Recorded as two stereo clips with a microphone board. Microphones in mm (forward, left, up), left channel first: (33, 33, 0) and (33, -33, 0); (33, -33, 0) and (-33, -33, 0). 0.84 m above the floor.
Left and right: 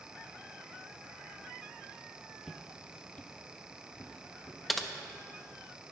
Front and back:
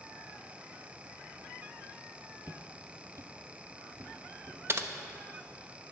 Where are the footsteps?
165° right, 0.9 m; by 4.6 s 140° left, 2.5 m.